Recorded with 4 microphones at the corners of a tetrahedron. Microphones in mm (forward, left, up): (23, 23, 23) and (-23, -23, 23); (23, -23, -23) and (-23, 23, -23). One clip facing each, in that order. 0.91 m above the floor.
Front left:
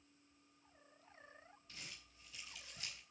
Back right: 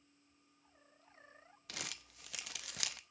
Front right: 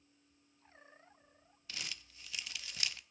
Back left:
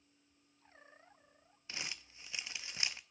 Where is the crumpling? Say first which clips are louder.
Back right 9 dB, back left 1 dB; 160° right, 0.6 m.